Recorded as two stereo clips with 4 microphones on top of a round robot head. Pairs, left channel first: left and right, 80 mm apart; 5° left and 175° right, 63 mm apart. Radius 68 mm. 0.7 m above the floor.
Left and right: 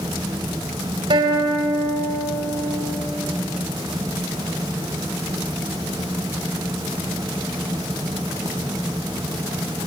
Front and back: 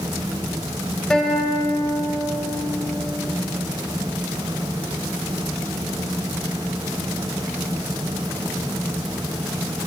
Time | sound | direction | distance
1.1 | a guitar | 75° right | 5 m